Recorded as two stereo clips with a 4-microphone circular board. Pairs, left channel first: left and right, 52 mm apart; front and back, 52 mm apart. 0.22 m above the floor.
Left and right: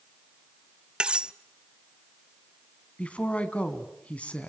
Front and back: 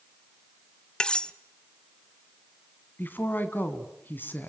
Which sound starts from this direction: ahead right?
Cutlery clinking, at 1.0 s.